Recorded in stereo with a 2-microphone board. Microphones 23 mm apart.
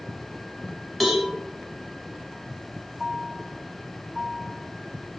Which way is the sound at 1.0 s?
10° left (ahead or behind).